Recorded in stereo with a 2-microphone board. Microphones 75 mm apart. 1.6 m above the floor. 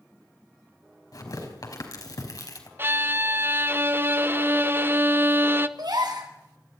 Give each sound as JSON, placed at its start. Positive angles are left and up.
{"t": 1.1, "sound": "tearing paper", "side_deg": 55, "distance_m": 4.5}
{"t": 2.8, "sound": "a violin", "side_deg": -30, "distance_m": 0.8}
{"t": 5.8, "sound": "a gasp", "side_deg": -70, "distance_m": 4.0}